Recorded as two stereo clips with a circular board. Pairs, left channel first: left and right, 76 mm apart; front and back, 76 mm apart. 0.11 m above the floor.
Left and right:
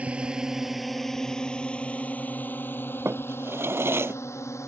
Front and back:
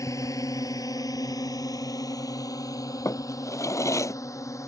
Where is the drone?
20° right; by 4.7 s 45° left.